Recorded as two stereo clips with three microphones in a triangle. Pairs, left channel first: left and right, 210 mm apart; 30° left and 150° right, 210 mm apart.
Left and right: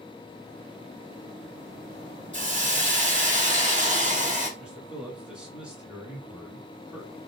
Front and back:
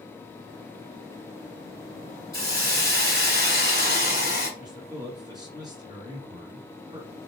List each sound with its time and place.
2.3 s a hiss: 135° right, 1.5 m
4.6 s a man speaking: 165° right, 1.5 m